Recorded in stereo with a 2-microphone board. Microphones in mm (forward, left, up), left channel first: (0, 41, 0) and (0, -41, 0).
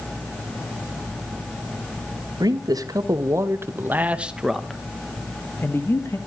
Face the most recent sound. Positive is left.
turn(degrees=35)  # may be behind; listen again after turning